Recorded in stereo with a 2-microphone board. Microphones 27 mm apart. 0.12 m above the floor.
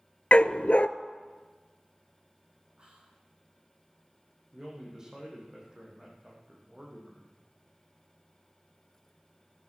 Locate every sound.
0.3 s a dog barking: 55° left (ahead or behind), 0.5 m
2.8 s whispering: 40° right (ahead or behind), 5 m
4.5 s a man speaking: 20° right (ahead or behind), 6.5 m